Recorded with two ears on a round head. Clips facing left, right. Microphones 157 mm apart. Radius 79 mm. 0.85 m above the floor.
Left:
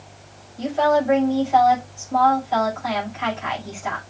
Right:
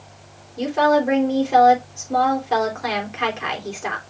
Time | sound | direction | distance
0.6 | a woman speaking | 70° right (ahead or behind) | 4 m